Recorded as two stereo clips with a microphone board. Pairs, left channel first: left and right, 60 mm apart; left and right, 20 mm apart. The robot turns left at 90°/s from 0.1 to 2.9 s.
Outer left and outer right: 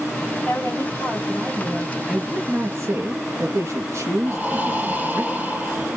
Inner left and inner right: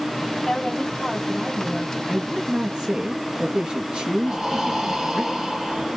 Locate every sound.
0.4 s a woman speaking: 125° left, 3 m; by 2.0 s 20° right, 3 m
2.1 s a man speaking: 5° right, 2.5 m; by 5.2 s 80° right, 2.5 m
4.2 s breathing: 25° right (ahead or behind), 3 m